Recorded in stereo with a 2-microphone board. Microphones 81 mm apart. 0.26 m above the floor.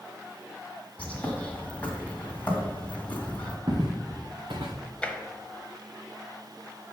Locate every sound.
1.0 s a bird: 20° left (ahead or behind), 1.7 m
3.7 s footsteps: 85° right, 2.5 m; by 4.8 s 80° right, 1.2 m
5.0 s tapping: 15° left (ahead or behind), 0.9 m